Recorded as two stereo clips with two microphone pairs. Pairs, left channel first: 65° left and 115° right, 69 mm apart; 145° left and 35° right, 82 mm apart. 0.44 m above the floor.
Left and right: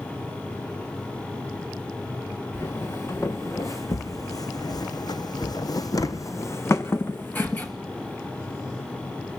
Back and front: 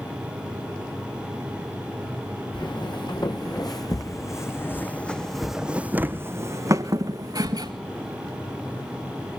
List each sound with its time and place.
2.5 s footsteps: 120° left, 2.5 m; by 7.7 s straight ahead, 2 m